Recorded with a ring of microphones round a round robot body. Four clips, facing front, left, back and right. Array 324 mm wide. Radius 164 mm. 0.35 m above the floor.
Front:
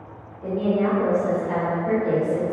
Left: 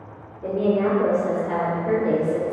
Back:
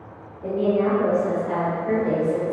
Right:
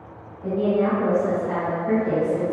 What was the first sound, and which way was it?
A woman speaking, 90° left.